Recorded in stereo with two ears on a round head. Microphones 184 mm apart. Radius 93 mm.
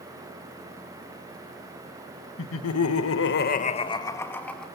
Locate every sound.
2.4 s laughter: 65° left (ahead or behind), 1.6 m; by 4.7 s 5° left (ahead or behind), 2.5 m